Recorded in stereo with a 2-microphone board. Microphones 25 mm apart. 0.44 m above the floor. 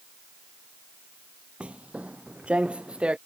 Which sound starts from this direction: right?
Footsteps, at 1.6 s.